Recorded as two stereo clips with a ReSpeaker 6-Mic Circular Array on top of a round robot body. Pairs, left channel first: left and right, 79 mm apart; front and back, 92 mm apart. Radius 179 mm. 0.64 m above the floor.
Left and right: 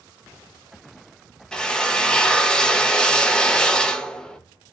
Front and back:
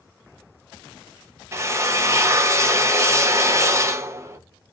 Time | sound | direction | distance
1.5 | a drill | 160° left | 0.9 m